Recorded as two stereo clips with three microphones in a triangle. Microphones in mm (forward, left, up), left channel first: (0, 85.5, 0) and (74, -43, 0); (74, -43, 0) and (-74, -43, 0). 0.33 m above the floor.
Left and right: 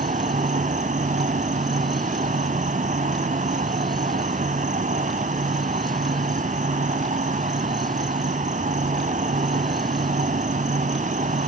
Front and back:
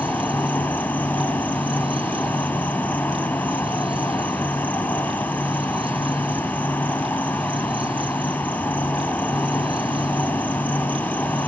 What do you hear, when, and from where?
0.0 s an insect: 80° right, 0.7 m